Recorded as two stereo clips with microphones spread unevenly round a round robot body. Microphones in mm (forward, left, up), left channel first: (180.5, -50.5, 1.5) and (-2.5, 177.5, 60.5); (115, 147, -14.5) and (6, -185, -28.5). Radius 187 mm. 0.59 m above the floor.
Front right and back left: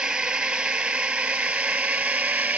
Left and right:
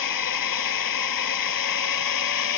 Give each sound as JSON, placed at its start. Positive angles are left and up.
{"t": 0.0, "sound": "a drone", "azimuth_deg": 40}